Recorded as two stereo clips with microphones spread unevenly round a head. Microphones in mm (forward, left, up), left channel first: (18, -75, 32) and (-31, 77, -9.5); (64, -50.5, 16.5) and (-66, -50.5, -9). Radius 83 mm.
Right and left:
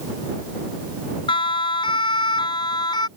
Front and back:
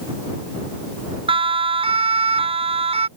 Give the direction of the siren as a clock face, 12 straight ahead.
4 o'clock.